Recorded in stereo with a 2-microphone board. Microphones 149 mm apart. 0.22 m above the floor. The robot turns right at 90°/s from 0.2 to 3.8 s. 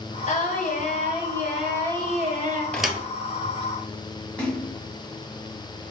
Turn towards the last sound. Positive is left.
turn(degrees=10)  # may be behind; listen again after turning